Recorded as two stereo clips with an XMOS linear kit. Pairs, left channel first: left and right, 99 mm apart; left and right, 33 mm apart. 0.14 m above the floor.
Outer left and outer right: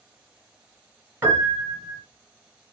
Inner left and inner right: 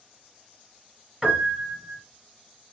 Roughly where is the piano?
Right.